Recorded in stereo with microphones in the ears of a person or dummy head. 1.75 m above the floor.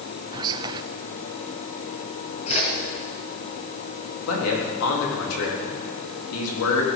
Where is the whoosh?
25° left (ahead or behind), 3 m.